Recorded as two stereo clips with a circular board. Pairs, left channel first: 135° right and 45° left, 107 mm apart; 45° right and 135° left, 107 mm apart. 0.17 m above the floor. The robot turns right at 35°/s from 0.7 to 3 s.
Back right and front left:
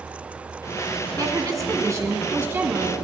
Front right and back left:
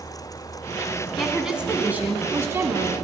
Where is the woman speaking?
45° left, 1.1 m; by 3.0 s 110° left, 1.1 m.